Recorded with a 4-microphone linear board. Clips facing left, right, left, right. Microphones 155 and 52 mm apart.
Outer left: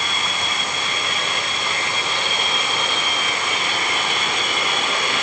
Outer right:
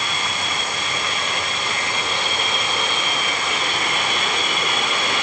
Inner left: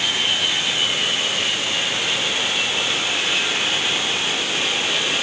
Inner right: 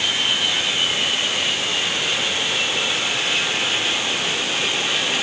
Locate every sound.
Only background noise.